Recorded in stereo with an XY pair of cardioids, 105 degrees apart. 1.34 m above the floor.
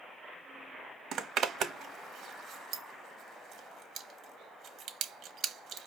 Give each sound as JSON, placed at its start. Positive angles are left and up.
{"t": 1.1, "sound": "a zipper", "azimuth_deg": -65, "distance_m": 1.0}